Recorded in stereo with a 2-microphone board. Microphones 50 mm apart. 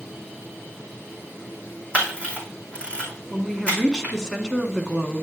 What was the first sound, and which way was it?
A camera shutter, 25° left (ahead or behind).